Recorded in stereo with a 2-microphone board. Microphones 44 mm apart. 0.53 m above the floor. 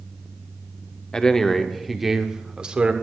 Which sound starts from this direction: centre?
A man speaking, at 1.1 s.